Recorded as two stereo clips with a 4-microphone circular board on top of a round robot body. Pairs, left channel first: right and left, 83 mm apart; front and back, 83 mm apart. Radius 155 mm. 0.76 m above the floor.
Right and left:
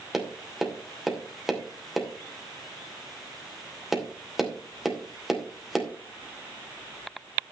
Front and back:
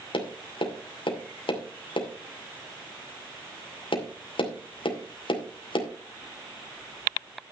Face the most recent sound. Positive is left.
turn(degrees=5)